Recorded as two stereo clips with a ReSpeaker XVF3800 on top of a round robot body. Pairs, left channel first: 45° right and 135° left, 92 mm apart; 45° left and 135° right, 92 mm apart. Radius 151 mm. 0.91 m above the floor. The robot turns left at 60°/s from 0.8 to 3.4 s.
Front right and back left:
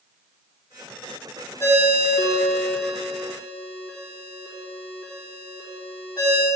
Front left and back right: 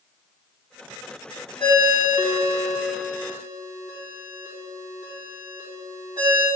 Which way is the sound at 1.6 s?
15° left.